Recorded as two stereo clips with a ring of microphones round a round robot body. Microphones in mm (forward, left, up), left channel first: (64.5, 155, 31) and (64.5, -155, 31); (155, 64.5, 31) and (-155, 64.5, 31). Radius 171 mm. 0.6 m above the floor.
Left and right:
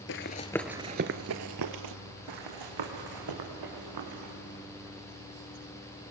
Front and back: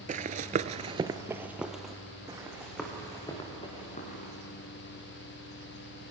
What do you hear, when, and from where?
0.1 s running footsteps: 125° left, 0.7 m; by 1.9 s 90° right, 1.1 m
2.3 s running footsteps: 100° right, 3 m; by 4.3 s 70° right, 5 m